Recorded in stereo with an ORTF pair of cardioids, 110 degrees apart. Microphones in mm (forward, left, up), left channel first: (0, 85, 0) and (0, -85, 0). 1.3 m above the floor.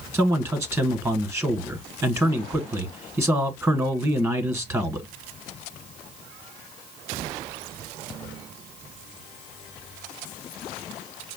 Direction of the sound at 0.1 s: 15° right.